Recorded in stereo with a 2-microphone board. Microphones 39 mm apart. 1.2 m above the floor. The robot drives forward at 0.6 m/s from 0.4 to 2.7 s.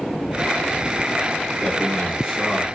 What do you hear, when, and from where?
1.6 s a man speaking: centre (ahead or behind), 0.8 m